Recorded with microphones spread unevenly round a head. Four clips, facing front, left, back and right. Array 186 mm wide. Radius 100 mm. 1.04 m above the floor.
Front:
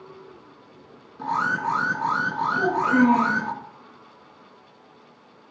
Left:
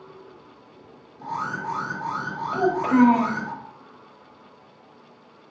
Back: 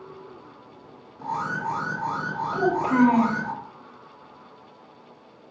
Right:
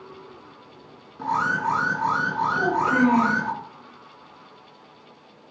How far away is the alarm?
About 3 m.